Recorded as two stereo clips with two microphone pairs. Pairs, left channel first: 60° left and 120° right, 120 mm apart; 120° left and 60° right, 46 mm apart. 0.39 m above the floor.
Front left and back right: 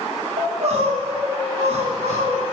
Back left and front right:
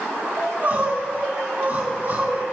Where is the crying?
115° right, 2.5 m.